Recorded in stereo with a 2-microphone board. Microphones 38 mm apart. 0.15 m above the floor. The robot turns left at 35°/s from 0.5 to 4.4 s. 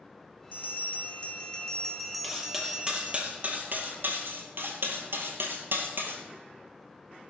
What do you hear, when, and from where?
0.5 s a bell: 55° left, 1.4 m; by 3.2 s 40° right, 1.4 m
2.2 s cutlery clinking: centre (ahead or behind), 2 m; by 6.2 s 65° right (ahead or behind), 2 m